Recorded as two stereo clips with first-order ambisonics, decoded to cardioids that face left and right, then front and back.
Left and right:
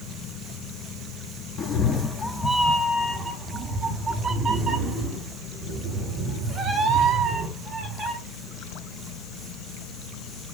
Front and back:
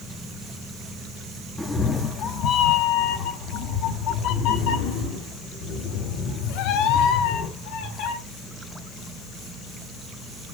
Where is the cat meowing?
75° left, 0.8 m; by 8.2 s 20° right, 4.5 m.